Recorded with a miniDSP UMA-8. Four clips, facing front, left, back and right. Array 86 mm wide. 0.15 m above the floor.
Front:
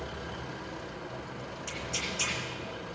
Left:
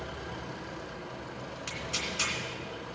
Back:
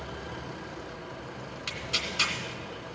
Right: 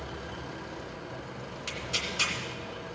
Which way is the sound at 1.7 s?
175° right.